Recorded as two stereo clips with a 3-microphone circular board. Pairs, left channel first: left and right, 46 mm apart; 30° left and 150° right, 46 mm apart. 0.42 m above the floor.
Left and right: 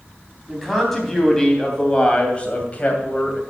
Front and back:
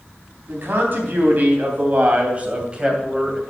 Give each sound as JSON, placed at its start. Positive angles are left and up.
{"t": 0.5, "sound": "a man speaking", "azimuth_deg": 175, "distance_m": 3.0}